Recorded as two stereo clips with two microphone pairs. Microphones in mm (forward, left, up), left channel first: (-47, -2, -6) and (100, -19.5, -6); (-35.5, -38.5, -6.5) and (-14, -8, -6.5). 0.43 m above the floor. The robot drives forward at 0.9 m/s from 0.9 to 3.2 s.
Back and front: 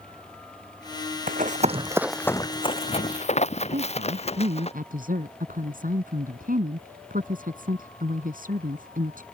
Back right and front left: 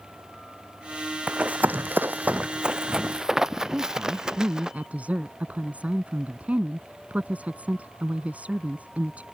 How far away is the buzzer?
I don't hear a buzzer.